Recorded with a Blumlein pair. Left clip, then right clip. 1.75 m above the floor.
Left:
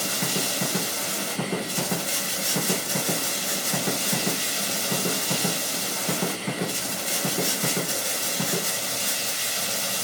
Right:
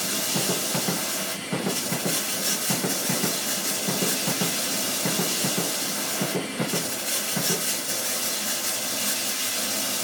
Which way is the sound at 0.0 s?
5° left.